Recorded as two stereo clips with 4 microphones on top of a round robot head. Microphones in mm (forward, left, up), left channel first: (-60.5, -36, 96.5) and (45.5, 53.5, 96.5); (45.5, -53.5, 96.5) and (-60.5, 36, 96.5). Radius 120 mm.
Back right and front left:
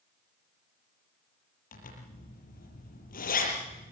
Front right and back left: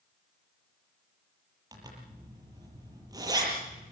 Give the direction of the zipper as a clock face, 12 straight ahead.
5 o'clock.